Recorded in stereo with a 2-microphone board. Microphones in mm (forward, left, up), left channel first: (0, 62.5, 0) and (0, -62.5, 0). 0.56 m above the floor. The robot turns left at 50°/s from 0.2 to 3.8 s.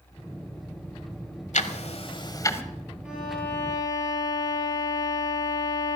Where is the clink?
No clink in this recording.